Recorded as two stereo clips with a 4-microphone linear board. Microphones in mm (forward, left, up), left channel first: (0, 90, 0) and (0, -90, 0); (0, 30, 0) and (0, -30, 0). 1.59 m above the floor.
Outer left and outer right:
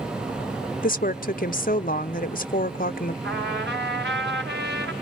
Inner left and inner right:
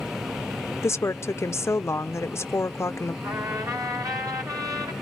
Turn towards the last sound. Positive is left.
turn(degrees=-70)  # may be behind; listen again after turning